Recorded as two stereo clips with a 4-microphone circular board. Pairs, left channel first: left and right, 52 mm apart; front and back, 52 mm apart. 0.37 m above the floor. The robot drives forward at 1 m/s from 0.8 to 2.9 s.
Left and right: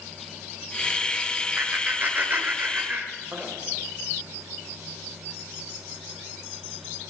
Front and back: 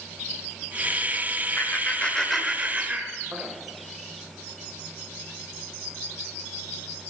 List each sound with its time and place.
1.6 s laughter: 30° right, 1.3 m; by 3.5 s 135° right, 1.1 m